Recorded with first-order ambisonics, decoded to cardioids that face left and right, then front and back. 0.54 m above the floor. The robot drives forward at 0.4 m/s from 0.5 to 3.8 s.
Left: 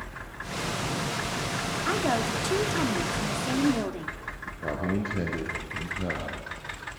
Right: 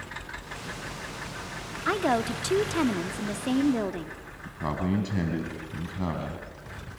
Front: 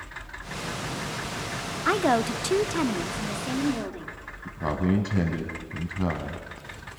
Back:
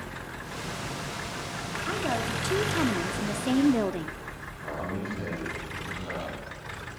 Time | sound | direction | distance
1.9 | a woman speaking | 15° right | 0.7 m
4.5 | a man speaking | 45° right | 3.5 m